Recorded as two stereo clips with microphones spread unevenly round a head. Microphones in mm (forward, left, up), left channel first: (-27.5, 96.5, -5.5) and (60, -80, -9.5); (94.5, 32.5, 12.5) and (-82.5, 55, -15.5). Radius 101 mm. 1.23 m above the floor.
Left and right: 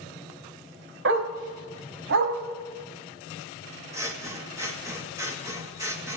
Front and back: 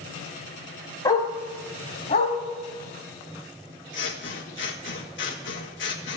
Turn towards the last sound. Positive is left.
turn(degrees=10)